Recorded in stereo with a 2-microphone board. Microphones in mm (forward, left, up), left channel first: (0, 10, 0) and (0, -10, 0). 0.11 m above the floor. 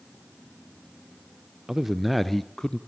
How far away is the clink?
No clink in this recording.